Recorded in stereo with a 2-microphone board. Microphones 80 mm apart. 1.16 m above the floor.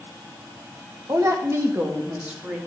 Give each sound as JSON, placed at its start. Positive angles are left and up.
{"t": 1.1, "sound": "a woman speaking", "side_deg": -40, "distance_m": 1.5}